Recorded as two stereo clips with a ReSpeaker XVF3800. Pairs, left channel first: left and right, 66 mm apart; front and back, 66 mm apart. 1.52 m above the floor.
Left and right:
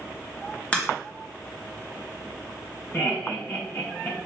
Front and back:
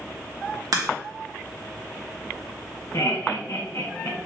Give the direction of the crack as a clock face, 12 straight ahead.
7 o'clock.